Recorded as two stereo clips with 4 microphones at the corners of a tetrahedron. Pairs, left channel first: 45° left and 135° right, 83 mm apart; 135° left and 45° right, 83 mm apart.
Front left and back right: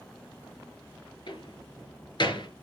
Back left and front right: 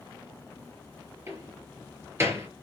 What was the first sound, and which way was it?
A door slam, 15° left.